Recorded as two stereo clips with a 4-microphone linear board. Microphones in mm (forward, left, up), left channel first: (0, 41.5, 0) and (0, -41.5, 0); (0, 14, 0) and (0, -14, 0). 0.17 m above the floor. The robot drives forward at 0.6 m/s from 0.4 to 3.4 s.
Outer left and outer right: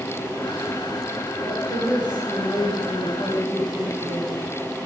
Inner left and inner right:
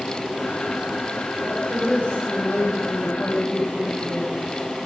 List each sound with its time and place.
1.4 s a woman speaking: 45° left (ahead or behind), 6 m; by 4.5 s 55° left (ahead or behind), 5 m